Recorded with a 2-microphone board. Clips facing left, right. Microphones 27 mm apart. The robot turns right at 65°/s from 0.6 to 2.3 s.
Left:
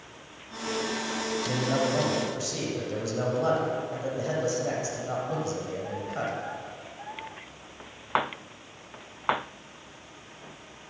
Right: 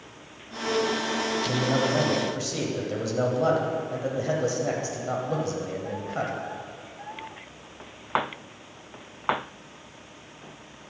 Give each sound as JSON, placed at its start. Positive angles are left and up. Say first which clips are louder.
{"t": 1.4, "sound": "a man speaking", "louder": "right 1 dB", "side_deg": 5, "distance_m": 0.9}